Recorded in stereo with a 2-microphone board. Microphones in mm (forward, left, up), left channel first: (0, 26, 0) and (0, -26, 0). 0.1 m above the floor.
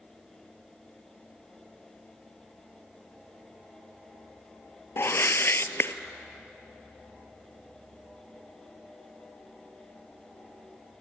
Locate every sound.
5.0 s a whoosh: 55° left (ahead or behind), 0.6 m